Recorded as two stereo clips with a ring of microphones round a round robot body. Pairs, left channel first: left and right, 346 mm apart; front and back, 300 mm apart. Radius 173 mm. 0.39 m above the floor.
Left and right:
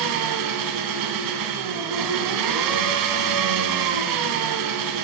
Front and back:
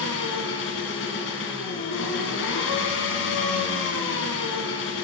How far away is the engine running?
About 1.9 m.